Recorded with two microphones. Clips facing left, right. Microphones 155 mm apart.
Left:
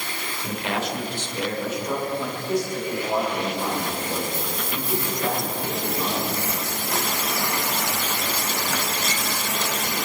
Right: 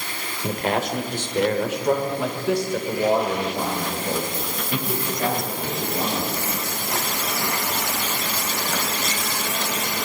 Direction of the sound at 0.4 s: 40° right (ahead or behind).